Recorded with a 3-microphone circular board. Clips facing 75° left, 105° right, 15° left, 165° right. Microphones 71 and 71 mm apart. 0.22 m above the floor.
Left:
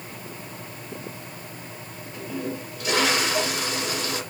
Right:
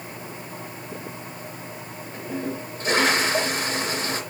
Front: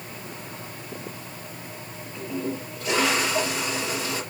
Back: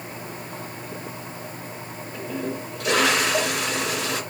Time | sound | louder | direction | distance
2.1 | a toilet flushing | right 1 dB, even | 160° right | 2.5 m